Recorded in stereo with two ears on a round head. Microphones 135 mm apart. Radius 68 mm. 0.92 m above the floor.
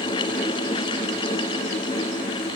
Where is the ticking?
No ticking in this recording.